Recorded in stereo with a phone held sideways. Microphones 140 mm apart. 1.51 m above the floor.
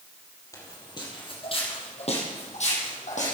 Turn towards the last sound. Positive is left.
turn(degrees=60)  # may be behind; listen again after turning